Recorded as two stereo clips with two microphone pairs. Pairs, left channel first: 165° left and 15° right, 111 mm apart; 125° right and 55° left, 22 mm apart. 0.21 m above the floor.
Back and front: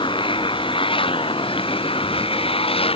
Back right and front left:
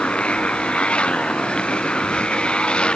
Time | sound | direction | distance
0.0 | a motorcycle | 160° right | ?